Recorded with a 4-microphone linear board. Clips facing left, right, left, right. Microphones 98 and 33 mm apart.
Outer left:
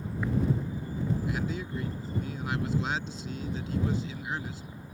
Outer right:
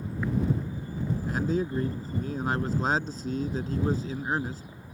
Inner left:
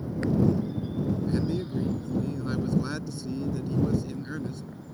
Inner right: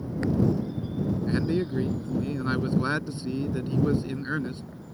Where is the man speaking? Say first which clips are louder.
Outer right 5 dB, inner right 2 dB; 45° right (ahead or behind).